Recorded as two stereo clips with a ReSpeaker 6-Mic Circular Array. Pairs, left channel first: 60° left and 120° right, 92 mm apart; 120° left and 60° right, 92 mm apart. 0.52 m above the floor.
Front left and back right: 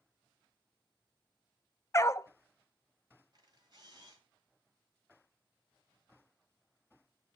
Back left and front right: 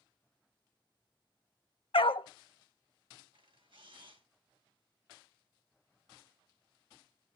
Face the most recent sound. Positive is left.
turn(degrees=-85)